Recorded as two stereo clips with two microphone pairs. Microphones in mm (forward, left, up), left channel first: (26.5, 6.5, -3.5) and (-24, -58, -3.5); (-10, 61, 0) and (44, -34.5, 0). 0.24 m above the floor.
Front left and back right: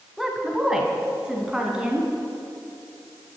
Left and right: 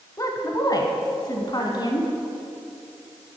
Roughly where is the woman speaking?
Behind left.